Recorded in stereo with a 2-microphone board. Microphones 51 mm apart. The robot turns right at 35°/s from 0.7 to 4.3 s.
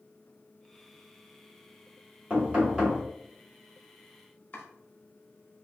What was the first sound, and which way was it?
Knocking, 35° right (ahead or behind).